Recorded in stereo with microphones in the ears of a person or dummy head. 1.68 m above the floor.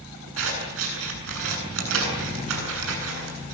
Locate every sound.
0.4 s scissors: 80° right, 8.5 m